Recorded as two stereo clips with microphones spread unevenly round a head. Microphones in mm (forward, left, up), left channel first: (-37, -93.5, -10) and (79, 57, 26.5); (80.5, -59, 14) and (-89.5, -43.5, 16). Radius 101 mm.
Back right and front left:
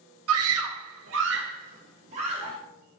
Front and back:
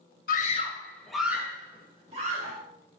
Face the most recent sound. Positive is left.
turn(degrees=120)